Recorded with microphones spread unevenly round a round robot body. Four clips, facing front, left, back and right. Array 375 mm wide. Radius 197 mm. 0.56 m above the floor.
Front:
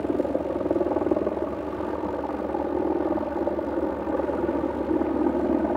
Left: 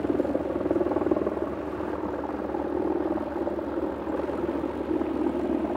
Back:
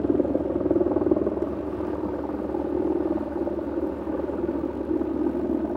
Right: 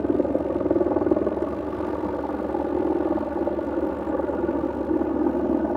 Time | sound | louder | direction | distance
0.0 | a helicopter | right 3 dB, back 2 dB | 140° right | ?